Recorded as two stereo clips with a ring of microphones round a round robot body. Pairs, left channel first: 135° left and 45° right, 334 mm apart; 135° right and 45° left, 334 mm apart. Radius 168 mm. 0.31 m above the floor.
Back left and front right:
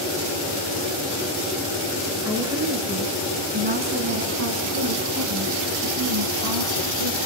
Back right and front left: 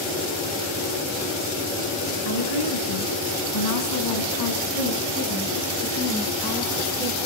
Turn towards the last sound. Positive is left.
turn(degrees=-45)